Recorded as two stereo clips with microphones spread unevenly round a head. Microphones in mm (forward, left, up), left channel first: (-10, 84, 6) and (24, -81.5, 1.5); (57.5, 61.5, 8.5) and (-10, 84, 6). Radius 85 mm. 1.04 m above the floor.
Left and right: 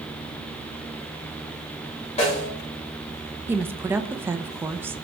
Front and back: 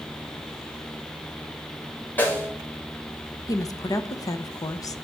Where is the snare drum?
45° left, 6 m.